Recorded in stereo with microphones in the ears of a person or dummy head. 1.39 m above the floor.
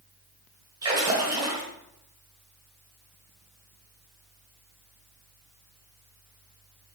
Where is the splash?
20° right (ahead or behind), 1.4 m.